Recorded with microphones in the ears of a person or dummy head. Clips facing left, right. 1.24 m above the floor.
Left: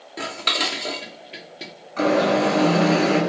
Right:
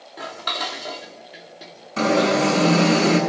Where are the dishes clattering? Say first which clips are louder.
Left 2 dB; 40° left (ahead or behind), 2 m.